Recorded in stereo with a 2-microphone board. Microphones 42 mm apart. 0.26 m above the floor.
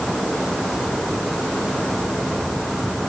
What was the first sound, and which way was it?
Only background noise.